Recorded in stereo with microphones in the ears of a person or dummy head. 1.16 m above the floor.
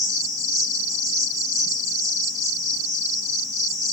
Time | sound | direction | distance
0.0 | an insect | 25° right (ahead or behind) | 1.4 m